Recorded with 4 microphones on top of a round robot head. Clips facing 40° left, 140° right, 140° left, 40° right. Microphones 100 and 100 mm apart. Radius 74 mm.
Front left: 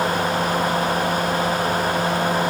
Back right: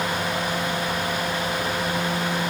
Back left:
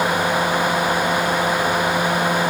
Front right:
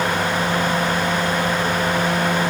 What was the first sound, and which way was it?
Only background noise.